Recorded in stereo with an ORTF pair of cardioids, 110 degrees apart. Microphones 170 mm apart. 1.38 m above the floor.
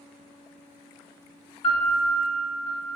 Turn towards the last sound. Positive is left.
turn(degrees=35)